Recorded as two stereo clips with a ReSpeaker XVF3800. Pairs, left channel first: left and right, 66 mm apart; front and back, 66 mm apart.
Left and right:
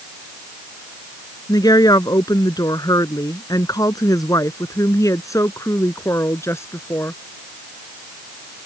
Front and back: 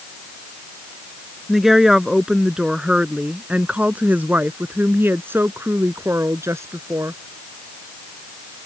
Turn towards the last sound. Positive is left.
turn(degrees=140)